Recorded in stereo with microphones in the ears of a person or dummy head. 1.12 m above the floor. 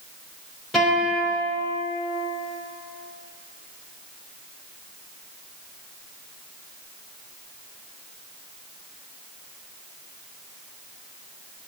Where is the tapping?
No tapping in this recording.